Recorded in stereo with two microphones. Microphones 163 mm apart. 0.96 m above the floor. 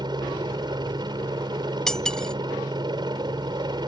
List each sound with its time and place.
0.0 s a helicopter: 25° right (ahead or behind)
1.9 s cutlery clinking: 5° left (ahead or behind)